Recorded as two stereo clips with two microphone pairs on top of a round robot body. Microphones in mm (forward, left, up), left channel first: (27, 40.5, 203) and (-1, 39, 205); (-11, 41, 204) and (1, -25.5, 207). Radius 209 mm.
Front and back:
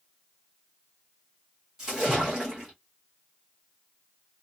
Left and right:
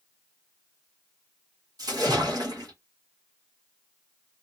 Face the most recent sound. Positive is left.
turn(degrees=-105)